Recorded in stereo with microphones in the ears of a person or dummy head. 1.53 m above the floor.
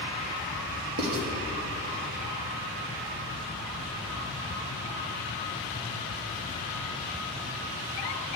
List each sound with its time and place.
1.0 s writing: 75° right (ahead or behind), 1.5 m